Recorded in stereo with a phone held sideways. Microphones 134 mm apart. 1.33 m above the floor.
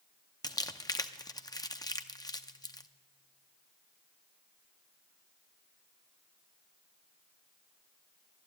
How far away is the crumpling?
About 0.6 m.